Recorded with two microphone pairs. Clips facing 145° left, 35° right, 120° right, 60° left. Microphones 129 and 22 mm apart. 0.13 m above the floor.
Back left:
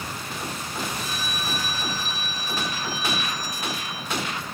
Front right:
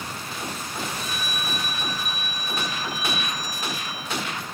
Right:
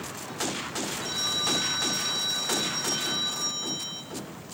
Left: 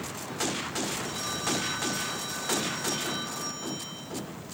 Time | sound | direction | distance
1.0 | a phone ringing | 160° right | 1.7 m